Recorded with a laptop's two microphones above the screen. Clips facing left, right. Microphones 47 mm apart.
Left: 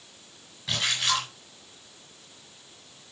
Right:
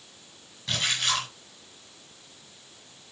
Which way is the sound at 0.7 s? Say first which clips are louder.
Left 1 dB; 5° left (ahead or behind).